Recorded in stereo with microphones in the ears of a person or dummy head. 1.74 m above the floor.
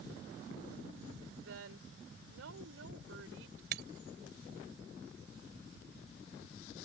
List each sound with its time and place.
1.4 s a woman speaking: 75° right (ahead or behind); by 3.6 s 90° right
3.7 s breaking glass: 55° right (ahead or behind)